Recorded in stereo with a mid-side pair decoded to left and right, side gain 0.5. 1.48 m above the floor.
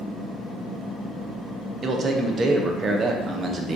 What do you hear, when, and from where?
1.8 s a man speaking: 40° right, 0.6 m